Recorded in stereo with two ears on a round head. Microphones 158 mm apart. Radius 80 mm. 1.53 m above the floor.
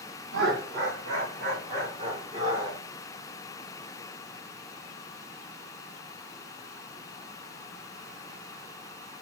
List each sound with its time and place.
0.3 s laughter: 70° right (ahead or behind), 1.8 m; by 2.8 s 15° right (ahead or behind), 1.4 m